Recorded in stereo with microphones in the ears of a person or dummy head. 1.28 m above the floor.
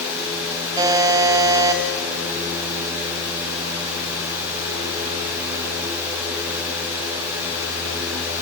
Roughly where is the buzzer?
Right.